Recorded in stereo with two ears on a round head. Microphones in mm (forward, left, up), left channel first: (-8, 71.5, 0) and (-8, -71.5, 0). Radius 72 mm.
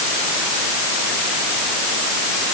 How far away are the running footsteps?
I don't hear running footsteps.